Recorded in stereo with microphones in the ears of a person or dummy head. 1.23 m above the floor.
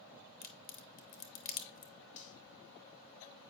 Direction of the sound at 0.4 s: 45° left (ahead or behind).